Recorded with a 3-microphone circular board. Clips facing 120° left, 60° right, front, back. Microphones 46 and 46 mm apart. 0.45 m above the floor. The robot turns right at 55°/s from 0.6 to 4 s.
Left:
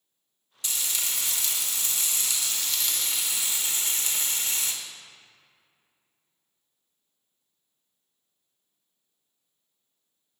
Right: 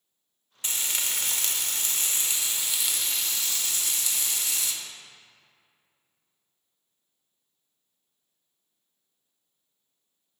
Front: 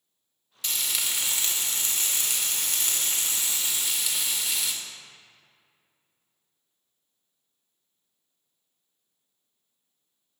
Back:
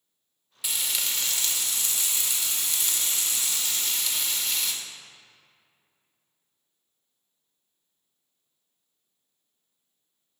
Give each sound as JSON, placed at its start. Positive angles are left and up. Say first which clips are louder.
{"t": 0.6, "sound": "frying", "louder": "right 1 dB, even", "azimuth_deg": -105, "distance_m": 0.8}